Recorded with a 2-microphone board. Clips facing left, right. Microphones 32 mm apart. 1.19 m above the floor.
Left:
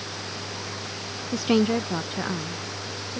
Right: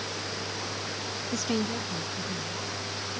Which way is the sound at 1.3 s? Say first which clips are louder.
Left 9 dB; 15° left (ahead or behind).